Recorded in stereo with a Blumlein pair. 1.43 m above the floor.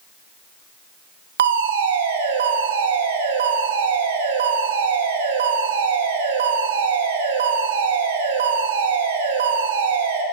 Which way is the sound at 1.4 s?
60° right.